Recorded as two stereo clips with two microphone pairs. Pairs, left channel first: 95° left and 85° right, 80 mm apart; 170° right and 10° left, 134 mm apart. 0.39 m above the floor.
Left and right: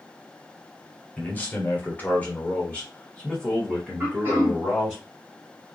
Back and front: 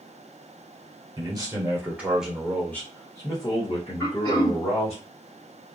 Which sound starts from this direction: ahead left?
A man speaking, at 1.2 s.